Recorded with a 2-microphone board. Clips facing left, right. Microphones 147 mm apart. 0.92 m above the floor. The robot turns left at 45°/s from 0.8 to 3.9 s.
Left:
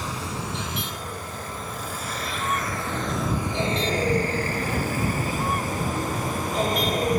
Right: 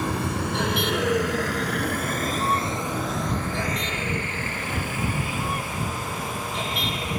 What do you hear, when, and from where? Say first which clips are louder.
0.0 s a vehicle: right 5 dB; 55° right (ahead or behind); by 7.2 s 40° left (ahead or behind)